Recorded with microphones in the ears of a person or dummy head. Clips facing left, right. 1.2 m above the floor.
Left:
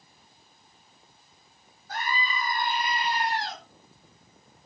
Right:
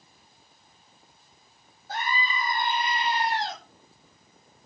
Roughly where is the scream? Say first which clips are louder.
Right 1 dB; right.